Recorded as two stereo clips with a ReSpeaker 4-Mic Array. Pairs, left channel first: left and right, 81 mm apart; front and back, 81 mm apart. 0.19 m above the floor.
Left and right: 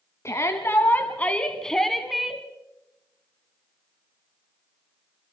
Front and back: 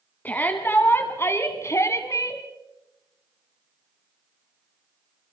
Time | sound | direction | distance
0.2 | a shout | 60° left | 1.7 m